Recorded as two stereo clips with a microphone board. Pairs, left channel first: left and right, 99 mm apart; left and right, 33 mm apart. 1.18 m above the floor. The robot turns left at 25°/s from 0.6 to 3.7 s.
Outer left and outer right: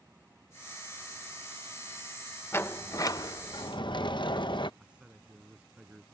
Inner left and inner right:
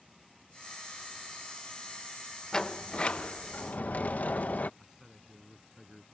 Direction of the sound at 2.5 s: 25° left (ahead or behind).